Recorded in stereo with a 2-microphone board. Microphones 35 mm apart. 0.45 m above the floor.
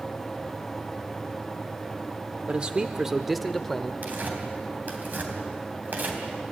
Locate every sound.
2.5 s a man speaking: 35° right (ahead or behind), 0.8 m; by 3.9 s 15° left (ahead or behind), 1.2 m
4.0 s tearing paper: 50° right (ahead or behind), 3.5 m